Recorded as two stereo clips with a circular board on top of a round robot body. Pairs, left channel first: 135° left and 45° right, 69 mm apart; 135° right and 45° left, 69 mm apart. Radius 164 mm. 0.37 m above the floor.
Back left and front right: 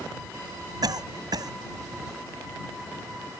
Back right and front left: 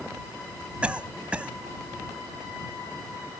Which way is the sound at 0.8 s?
25° right.